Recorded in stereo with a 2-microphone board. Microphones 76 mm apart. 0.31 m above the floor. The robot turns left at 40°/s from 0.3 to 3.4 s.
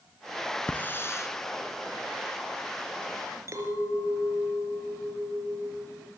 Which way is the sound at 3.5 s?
45° right (ahead or behind).